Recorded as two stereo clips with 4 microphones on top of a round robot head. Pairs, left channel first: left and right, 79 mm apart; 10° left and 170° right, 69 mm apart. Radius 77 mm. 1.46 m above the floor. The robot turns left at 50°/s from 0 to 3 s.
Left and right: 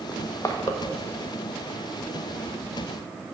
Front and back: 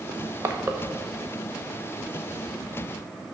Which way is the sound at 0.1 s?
175° left.